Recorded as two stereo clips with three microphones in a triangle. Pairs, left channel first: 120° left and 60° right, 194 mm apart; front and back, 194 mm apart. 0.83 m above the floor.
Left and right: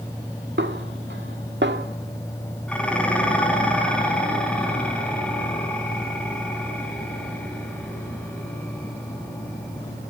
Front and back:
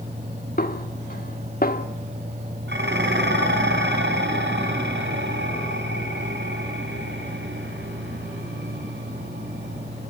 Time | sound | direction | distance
0.6 | a snare drum | 40° right | 1.5 m
2.7 | dishes clattering | 155° right | 5 m